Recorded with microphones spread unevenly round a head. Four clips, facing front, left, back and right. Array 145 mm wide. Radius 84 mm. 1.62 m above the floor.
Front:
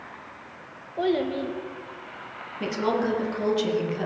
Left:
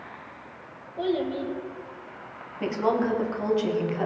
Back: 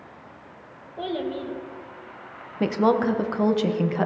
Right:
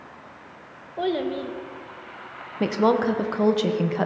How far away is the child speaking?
About 1.4 m.